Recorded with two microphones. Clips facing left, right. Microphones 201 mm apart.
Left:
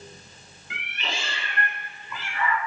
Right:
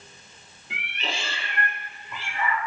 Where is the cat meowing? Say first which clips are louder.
Right 1 dB; 35° right (ahead or behind), 0.9 m.